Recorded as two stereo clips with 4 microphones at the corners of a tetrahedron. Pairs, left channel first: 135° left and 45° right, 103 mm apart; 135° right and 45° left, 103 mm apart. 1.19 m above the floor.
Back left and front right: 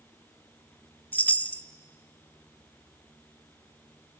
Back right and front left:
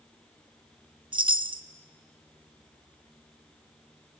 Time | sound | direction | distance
1.1 | a chime | 65° left | 0.6 m